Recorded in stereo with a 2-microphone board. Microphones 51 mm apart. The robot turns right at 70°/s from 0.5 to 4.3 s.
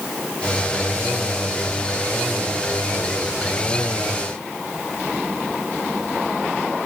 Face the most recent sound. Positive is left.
No sound to turn to.